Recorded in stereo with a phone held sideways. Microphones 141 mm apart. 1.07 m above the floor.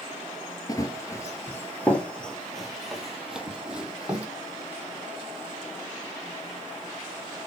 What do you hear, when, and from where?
0.7 s running footsteps: 25° left (ahead or behind), 1.1 m; by 4.3 s 10° right (ahead or behind), 2.5 m